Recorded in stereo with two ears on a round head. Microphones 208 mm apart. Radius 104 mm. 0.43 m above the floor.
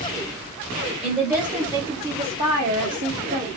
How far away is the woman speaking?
About 1.4 m.